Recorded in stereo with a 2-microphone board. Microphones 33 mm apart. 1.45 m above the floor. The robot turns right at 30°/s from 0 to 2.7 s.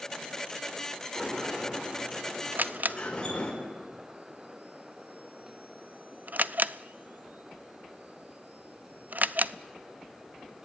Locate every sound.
1.1 s a sliding door: 20° right, 5 m; by 3.5 s 25° left, 5 m
2.5 s a camera shutter: 55° right (ahead or behind), 0.5 m; by 9.5 s 60° right (ahead or behind), 0.5 m